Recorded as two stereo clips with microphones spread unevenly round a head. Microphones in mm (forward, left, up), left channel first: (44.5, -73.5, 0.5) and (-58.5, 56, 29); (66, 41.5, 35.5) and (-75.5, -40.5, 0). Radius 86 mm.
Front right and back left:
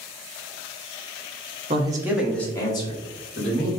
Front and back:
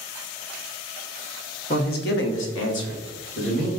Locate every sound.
1.7 s a man speaking: 75° left, 1.0 m; by 3.7 s 5° right, 2.0 m